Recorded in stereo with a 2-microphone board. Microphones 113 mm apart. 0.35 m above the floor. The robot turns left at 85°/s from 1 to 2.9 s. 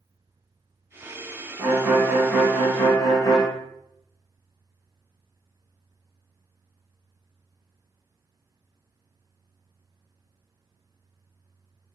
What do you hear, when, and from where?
1.6 s a violin: 115° right, 1.8 m; by 3.5 s 130° left, 1.8 m